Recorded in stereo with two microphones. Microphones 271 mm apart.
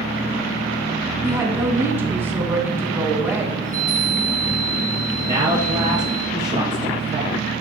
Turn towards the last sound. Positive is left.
turn(degrees=-15)  # may be behind; listen again after turning